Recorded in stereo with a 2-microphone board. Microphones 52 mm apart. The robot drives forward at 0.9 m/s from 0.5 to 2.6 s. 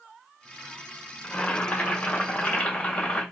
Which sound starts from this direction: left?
Boiling, at 1.2 s.